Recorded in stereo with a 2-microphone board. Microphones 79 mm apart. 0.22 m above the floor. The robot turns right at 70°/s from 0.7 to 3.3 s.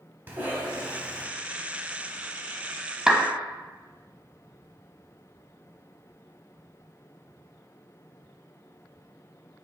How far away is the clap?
About 0.8 m.